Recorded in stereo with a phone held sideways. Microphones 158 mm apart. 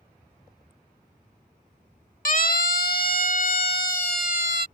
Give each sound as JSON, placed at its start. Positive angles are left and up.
{"t": 2.2, "sound": "a siren", "side_deg": 60}